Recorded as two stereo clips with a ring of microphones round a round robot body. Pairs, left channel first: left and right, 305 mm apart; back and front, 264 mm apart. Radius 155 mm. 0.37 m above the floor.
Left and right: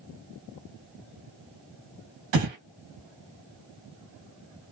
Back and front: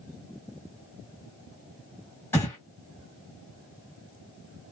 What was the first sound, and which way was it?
Breathing, 95° right.